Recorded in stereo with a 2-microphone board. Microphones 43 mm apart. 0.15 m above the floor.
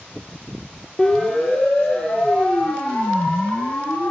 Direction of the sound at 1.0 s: 10° left (ahead or behind).